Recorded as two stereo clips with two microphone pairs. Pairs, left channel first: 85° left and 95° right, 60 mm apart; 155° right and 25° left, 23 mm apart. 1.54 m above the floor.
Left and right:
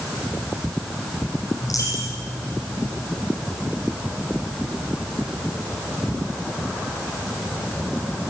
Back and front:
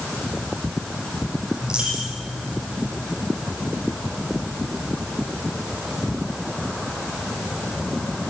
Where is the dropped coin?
75° left, 7 m.